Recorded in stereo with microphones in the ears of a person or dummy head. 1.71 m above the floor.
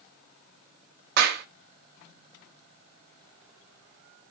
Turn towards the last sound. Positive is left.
turn(degrees=-55)  # may be behind; listen again after turning